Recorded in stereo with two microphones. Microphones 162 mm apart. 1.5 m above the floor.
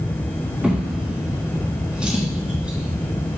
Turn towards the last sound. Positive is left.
turn(degrees=-5)  # may be behind; listen again after turning